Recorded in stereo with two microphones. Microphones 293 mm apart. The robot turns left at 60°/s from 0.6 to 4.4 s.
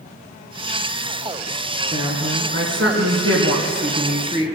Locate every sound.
1.9 s a woman speaking: 10° right, 2 m; by 4.6 s 160° right, 2 m